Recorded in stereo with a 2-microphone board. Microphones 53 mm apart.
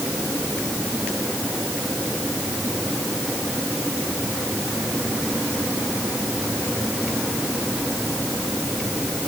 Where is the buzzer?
I don't hear a buzzer.